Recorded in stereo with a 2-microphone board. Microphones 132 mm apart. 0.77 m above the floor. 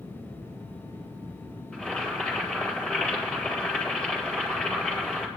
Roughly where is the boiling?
Centre.